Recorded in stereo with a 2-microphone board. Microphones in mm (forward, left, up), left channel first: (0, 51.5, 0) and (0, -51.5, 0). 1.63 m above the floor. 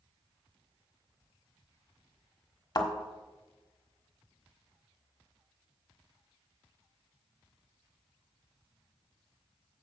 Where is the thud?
40° left (ahead or behind), 1.4 m.